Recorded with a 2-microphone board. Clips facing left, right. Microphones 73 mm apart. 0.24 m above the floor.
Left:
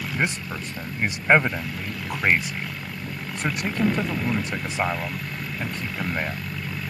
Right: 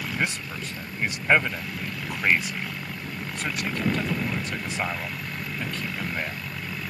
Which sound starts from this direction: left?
A man speaking, at 0.1 s.